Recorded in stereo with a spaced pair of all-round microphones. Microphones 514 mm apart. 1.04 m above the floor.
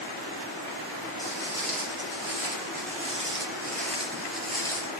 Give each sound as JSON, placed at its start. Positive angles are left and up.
{"t": 1.2, "sound": "footsteps", "side_deg": -30, "distance_m": 3.0}